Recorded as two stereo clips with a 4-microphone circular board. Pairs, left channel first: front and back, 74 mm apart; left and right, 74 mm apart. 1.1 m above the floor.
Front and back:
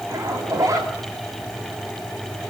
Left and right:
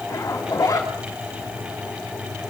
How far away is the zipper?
About 4 m.